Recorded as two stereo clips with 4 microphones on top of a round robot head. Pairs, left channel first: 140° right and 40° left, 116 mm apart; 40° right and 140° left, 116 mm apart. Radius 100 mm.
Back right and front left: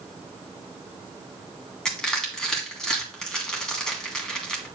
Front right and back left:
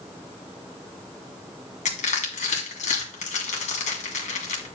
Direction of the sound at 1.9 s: 55° right.